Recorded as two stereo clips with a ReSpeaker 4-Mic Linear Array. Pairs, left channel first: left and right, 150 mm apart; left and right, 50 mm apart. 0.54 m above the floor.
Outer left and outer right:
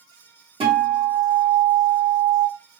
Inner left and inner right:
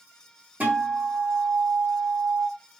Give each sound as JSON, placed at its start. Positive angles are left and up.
{"t": 0.6, "sound": "a guitar", "side_deg": -35, "distance_m": 1.8}